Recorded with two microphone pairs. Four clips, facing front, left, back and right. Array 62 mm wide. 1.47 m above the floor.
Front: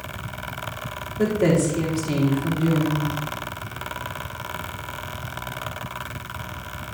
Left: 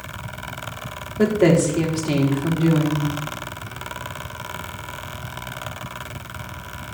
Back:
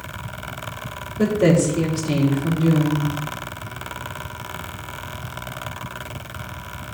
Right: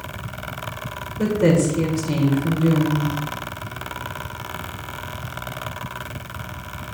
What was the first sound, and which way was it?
A woman speaking, 90° left.